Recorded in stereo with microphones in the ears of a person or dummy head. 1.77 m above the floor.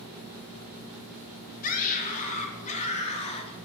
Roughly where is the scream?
Left.